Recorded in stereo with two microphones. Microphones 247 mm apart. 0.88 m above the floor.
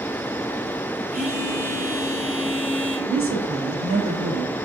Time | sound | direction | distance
1.1 | a phone buzzing | 35° right (ahead or behind) | 2.0 m
3.1 | a woman speaking | 55° right (ahead or behind) | 1.4 m